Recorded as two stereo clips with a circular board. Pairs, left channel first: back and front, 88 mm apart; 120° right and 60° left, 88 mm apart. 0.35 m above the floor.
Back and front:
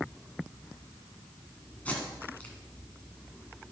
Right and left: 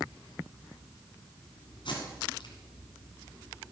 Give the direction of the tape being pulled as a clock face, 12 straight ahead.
4 o'clock.